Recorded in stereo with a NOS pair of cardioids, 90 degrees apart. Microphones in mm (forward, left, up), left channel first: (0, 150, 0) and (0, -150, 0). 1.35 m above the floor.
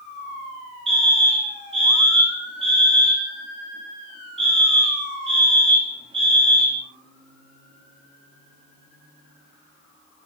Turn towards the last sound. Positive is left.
turn(degrees=-20)